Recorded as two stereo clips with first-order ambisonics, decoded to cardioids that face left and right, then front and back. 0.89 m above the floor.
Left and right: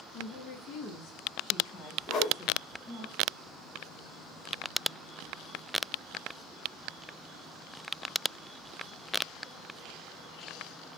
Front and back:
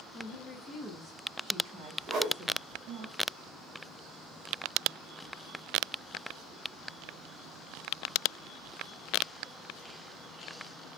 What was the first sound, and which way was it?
A woman speaking, 50° left.